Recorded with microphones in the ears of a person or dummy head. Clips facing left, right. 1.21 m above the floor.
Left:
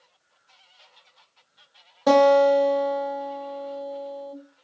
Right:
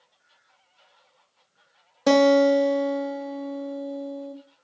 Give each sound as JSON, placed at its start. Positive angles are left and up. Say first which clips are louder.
{"t": 2.1, "sound": "a guitar", "louder": "left 1 dB", "side_deg": -25, "distance_m": 0.7}